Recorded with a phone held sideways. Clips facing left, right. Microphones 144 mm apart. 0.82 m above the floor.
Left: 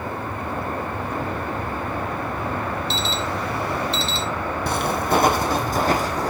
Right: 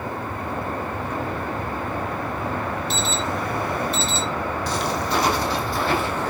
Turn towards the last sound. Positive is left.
turn(degrees=35)  # may be behind; listen again after turning